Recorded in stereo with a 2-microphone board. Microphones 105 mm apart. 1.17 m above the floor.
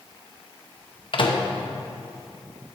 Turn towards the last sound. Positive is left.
turn(degrees=55)  # may be behind; listen again after turning